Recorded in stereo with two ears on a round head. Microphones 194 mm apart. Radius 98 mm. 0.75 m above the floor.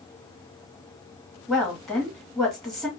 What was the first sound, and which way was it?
A woman speaking, centre (ahead or behind).